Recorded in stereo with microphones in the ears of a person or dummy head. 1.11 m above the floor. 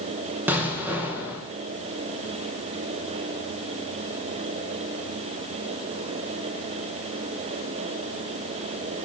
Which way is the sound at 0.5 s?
10° right (ahead or behind).